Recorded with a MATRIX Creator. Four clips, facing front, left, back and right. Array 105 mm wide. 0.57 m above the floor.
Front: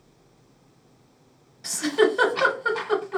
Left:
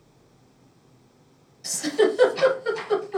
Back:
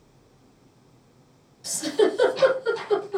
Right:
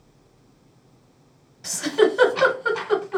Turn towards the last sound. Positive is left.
turn(degrees=-55)